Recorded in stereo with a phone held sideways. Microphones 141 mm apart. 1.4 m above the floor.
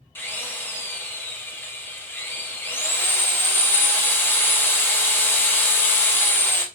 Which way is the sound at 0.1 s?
15° left (ahead or behind).